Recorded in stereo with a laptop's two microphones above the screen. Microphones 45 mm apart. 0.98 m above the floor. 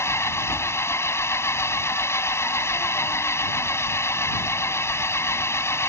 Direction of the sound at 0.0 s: 85° left.